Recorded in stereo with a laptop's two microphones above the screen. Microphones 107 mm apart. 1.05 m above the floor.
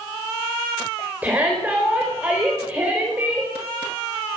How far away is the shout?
About 4 m.